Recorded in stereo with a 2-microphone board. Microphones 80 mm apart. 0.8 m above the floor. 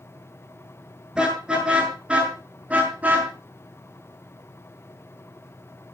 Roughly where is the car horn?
Centre.